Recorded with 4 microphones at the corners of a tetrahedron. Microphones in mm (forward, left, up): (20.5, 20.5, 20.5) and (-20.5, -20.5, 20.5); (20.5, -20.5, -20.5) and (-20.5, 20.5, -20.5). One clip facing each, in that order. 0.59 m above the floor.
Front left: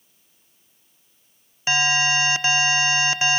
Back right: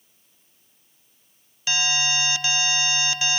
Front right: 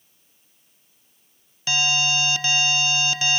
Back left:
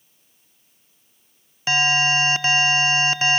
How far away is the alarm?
About 0.6 m.